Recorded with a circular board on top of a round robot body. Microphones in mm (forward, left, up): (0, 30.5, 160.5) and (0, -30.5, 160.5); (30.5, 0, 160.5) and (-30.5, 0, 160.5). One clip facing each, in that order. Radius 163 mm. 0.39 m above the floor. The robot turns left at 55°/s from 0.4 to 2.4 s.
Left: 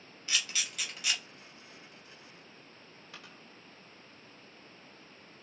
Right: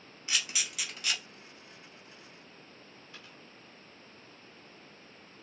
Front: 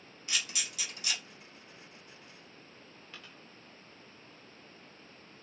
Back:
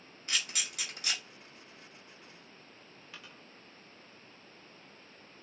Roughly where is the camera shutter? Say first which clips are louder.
Even, back 1 dB; behind right.